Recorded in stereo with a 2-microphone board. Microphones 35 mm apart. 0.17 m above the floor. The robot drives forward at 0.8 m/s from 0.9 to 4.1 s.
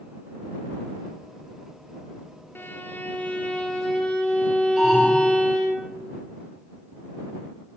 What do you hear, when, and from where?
2.5 s a violin: 75° left (ahead or behind), 0.7 m; by 5.8 s 25° left (ahead or behind), 1.4 m
4.8 s an alarm: 15° right (ahead or behind), 4 m